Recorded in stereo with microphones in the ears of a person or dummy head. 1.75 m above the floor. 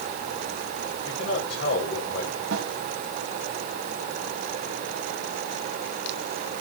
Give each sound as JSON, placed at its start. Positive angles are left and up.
{"t": 1.0, "sound": "a man speaking", "side_deg": 70, "distance_m": 6.5}
{"t": 2.5, "sound": "a snare drum", "side_deg": -85, "distance_m": 2.5}